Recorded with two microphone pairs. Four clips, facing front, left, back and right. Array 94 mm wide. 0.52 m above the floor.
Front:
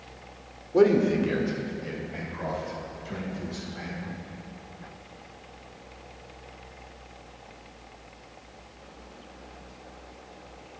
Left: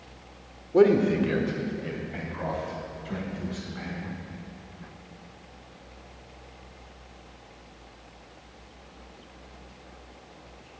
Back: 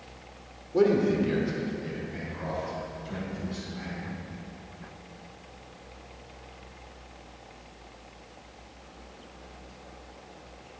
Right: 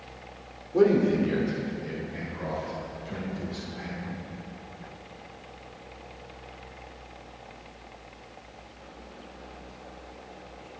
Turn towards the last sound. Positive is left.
turn(degrees=60)